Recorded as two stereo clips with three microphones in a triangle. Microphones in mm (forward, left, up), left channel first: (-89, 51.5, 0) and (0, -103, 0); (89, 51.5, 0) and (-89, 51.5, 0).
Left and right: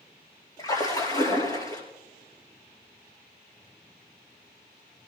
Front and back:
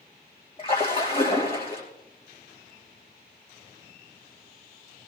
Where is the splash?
55° left, 4.5 m.